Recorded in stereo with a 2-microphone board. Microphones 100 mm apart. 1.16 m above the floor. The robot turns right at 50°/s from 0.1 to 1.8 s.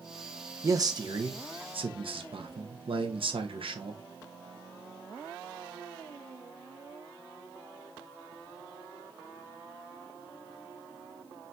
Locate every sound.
0.6 s a man speaking: 145° right, 0.8 m; by 4.0 s 85° right, 0.8 m